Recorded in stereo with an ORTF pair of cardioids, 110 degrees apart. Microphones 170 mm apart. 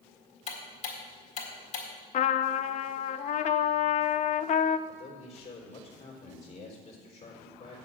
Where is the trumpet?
45° left, 0.6 m.